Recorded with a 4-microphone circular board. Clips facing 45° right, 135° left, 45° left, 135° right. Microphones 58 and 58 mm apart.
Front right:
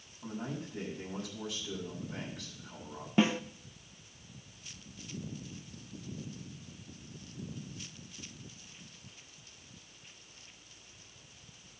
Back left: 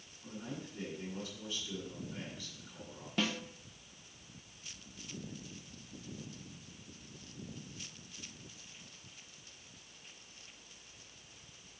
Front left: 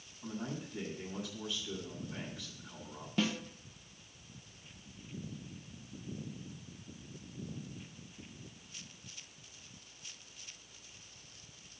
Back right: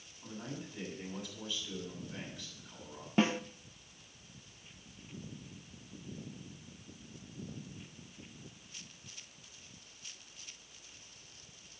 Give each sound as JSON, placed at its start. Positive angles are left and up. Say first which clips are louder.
{"t": 0.2, "sound": "a man speaking", "louder": "front right 5 dB, front left 3 dB", "azimuth_deg": -35, "distance_m": 6.5}
{"t": 3.2, "sound": "a snare drum", "louder": "front right 8 dB, back right 4 dB", "azimuth_deg": -100, "distance_m": 0.5}